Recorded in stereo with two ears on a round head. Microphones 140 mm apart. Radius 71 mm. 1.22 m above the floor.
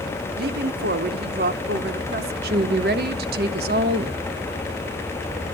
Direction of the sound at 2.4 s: 65° right (ahead or behind).